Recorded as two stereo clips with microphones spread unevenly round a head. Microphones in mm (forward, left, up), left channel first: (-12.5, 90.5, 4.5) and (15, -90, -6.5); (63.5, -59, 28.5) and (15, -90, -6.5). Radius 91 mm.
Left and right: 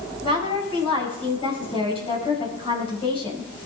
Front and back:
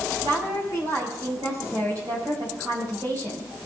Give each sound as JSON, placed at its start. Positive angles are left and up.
{"t": 0.2, "sound": "a woman speaking", "azimuth_deg": 160, "distance_m": 5.0}